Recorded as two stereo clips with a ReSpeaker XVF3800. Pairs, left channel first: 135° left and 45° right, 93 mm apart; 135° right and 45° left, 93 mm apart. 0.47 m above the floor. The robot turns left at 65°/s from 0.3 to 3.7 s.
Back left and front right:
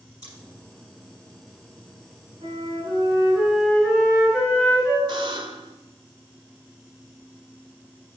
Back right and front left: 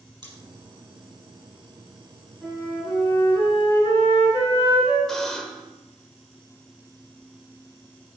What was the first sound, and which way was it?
Scissors, 90° left.